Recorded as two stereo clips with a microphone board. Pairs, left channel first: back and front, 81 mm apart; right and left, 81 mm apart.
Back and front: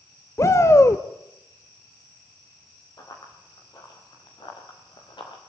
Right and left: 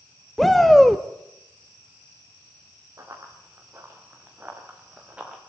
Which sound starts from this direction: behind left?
Running footsteps, at 3.0 s.